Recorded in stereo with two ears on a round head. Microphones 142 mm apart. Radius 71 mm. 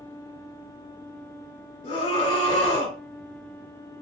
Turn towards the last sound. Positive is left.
turn(degrees=40)  # may be behind; listen again after turning